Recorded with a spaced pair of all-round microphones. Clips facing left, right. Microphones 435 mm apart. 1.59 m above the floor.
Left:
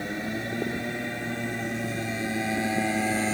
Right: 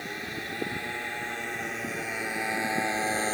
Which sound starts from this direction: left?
A motorcycle, at 0.0 s.